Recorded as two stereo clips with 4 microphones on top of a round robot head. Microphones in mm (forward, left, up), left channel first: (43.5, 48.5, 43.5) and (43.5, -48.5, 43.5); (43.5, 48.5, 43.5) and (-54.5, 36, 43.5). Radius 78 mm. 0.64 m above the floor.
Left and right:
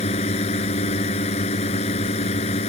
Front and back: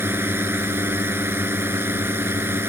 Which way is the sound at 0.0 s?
120° left.